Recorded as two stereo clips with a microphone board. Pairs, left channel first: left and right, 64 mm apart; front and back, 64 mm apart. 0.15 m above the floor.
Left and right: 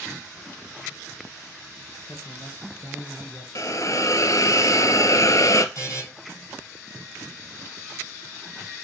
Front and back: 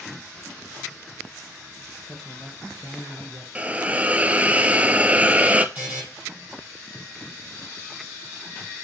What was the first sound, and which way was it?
A man speaking, 75° left.